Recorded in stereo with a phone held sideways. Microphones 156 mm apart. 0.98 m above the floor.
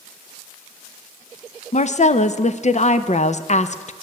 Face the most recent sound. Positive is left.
turn(degrees=50)  # may be behind; listen again after turning